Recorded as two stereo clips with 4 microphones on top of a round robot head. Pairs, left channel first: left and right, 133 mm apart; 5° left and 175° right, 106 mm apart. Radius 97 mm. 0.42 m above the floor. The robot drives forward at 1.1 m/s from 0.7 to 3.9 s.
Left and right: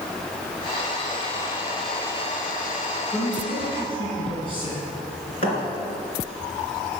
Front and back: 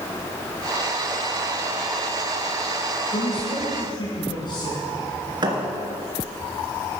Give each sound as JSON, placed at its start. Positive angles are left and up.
{"t": 3.1, "sound": "a man speaking", "azimuth_deg": 40, "distance_m": 5.0}
{"t": 5.4, "sound": "a thud", "azimuth_deg": 140, "distance_m": 2.5}